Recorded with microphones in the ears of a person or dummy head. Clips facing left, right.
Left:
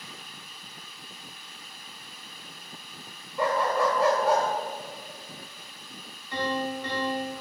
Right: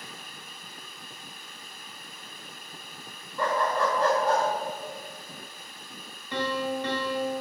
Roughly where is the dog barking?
Centre.